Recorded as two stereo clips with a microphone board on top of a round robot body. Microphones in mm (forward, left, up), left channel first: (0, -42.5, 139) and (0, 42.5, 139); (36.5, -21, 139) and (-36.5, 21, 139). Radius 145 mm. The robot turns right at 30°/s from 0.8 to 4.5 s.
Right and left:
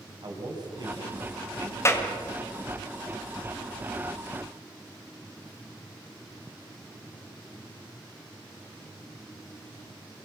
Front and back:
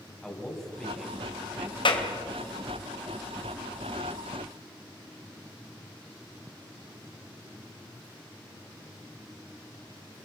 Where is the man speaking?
55° left, 4 m; by 2.4 s 105° left, 4 m.